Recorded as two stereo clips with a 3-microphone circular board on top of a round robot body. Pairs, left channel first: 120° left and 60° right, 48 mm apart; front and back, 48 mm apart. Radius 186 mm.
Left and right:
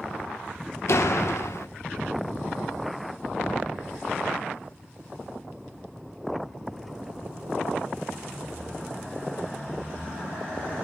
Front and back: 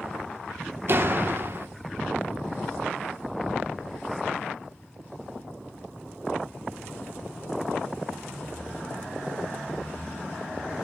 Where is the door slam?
140° left, 1.8 m.